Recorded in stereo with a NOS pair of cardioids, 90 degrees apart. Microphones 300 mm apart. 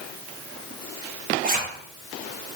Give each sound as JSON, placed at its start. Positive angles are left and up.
{"t": 1.4, "sound": "a zipper", "azimuth_deg": -30, "distance_m": 1.1}